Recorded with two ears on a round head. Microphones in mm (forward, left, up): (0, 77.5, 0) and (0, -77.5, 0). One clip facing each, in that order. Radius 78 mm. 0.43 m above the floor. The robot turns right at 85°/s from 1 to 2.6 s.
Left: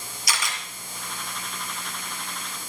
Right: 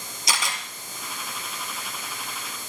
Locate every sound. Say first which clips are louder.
0.3 s a camera shutter: right 2 dB; 25° right (ahead or behind), 4.5 m